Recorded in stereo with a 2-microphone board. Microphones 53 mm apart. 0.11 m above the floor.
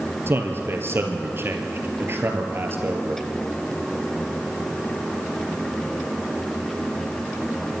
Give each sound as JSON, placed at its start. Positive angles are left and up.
{"t": 0.3, "sound": "a man speaking", "side_deg": -45, "distance_m": 2.5}